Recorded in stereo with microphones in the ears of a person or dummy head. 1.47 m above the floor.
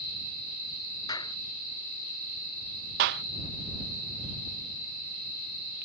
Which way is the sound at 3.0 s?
45° right (ahead or behind).